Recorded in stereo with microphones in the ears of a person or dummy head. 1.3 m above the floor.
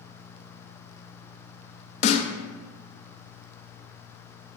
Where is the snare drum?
40° left (ahead or behind), 0.6 m.